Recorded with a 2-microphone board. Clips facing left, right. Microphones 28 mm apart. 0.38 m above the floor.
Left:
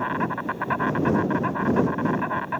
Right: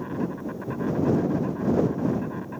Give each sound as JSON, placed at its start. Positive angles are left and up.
{"t": 0.0, "sound": "an insect", "side_deg": 50}